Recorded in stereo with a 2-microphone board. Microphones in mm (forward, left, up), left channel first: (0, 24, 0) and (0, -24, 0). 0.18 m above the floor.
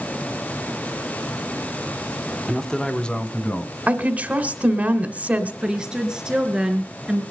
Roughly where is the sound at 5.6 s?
Centre.